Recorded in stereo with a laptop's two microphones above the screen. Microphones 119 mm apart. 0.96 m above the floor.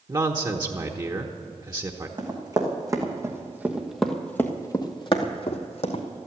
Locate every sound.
0.1 s a man speaking: 35° right (ahead or behind), 1.0 m
2.2 s running footsteps: 40° right (ahead or behind), 2.5 m; by 6.0 s 60° left (ahead or behind), 2.0 m